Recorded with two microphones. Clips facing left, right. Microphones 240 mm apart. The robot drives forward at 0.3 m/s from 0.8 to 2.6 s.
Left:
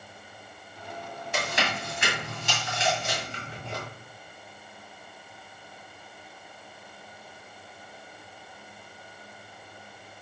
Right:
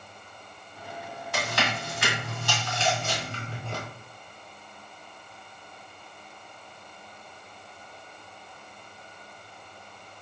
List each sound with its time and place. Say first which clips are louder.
1.3 s chewing: even; 25° left (ahead or behind), 1.9 m; by 3.8 s 20° left (ahead or behind), 2 m